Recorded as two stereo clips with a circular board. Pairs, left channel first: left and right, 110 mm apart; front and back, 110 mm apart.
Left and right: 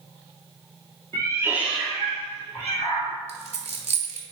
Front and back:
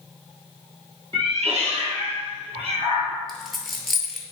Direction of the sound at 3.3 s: 90° right.